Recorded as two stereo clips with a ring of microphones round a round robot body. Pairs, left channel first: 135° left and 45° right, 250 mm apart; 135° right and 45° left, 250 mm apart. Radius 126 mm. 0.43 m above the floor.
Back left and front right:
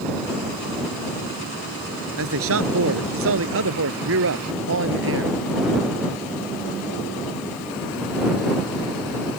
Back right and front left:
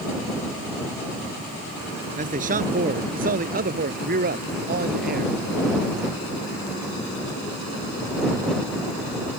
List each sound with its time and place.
2.2 s a man speaking: 15° right; by 5.4 s 5° right